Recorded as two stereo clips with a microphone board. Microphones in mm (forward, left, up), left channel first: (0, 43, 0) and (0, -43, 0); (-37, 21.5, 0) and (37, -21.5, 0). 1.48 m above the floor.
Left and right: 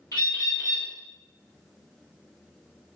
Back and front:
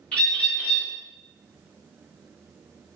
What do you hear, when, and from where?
0.1 s a bird: 80° left, 1.0 m